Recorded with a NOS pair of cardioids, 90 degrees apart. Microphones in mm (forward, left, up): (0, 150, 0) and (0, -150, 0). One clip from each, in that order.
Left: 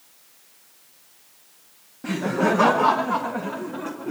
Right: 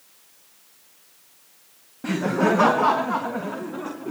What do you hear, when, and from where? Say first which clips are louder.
2.0 s laughter: right 1 dB; 15° right, 0.8 m; by 4.1 s straight ahead, 2.5 m